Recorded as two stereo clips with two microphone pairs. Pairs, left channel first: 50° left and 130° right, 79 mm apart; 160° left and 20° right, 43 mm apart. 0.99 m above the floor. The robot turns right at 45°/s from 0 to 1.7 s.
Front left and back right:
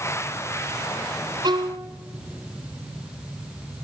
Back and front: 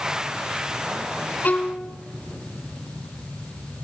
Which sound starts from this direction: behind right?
A violin, at 1.4 s.